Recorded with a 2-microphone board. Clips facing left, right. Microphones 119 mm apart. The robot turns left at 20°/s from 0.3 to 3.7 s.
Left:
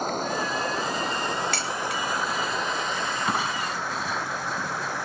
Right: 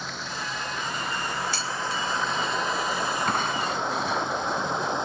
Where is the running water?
45° left; by 5.1 s 20° right.